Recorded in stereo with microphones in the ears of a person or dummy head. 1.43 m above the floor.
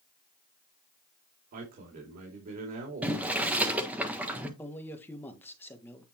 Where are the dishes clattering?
No dishes clattering in this recording.